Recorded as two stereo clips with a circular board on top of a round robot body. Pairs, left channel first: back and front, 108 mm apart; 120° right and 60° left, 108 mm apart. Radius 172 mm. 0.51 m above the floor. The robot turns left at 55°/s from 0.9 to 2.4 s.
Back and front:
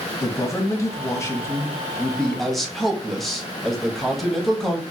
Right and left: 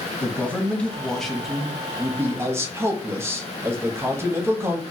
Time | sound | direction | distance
0.2 | a man speaking | 175° left | 1.0 m